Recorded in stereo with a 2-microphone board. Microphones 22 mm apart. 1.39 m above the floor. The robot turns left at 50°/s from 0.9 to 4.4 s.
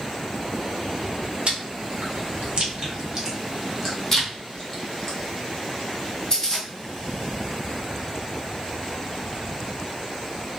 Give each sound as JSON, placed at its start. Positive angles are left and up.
{"t": 1.5, "sound": "chewing", "side_deg": -55, "distance_m": 0.9}